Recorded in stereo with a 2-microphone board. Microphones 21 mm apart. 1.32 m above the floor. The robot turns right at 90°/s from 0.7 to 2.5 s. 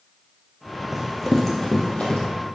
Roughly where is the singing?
No singing in this recording.